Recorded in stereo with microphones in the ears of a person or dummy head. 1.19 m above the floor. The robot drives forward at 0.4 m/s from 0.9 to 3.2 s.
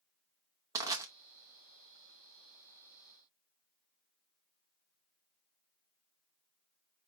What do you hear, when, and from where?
0.8 s crushing: 15° right (ahead or behind), 0.6 m